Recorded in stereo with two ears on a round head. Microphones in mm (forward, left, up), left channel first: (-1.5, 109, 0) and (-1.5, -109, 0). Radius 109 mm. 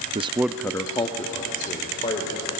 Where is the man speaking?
25° right (ahead or behind), 0.6 m; by 2.5 s 25° left (ahead or behind), 3 m.